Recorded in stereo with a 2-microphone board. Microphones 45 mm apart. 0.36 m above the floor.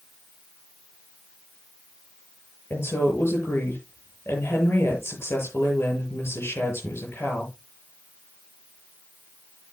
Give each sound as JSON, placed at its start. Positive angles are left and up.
{"t": 2.7, "sound": "a woman speaking", "side_deg": 55, "distance_m": 7.0}